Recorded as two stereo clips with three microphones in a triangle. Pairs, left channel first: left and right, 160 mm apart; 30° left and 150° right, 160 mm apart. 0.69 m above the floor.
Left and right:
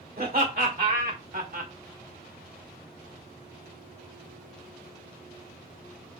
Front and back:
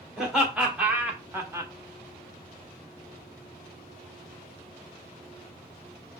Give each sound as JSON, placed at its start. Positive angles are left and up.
{"t": 0.2, "sound": "laughter", "azimuth_deg": -65, "distance_m": 2.0}